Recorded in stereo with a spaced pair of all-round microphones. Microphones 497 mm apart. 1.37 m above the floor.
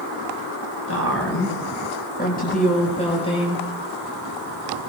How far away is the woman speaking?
About 6.5 m.